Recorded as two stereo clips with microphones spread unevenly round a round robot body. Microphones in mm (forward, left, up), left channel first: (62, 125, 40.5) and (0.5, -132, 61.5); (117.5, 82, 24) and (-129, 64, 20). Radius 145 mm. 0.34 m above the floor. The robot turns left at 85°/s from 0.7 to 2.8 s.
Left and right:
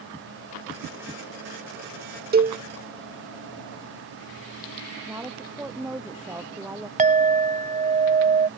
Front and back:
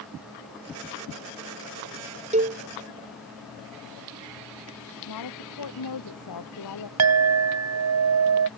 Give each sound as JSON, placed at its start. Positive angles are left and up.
{"t": 2.3, "sound": "a cowbell", "azimuth_deg": -135}
{"t": 5.1, "sound": "a woman speaking", "azimuth_deg": -20}
{"t": 7.0, "sound": "a clink", "azimuth_deg": -170}